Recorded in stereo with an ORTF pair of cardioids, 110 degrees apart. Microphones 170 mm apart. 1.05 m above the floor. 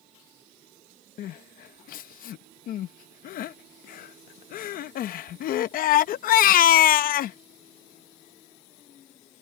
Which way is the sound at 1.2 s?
60° left.